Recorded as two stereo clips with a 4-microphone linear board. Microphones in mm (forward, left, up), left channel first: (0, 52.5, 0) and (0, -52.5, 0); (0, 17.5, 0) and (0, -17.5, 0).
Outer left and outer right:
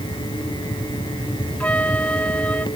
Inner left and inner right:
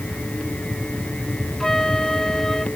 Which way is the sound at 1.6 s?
10° left (ahead or behind).